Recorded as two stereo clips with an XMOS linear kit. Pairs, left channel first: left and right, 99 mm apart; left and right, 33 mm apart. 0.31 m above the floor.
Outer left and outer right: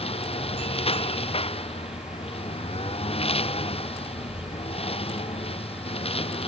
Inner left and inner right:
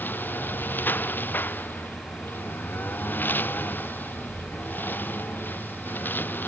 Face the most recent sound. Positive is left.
turn(degrees=80)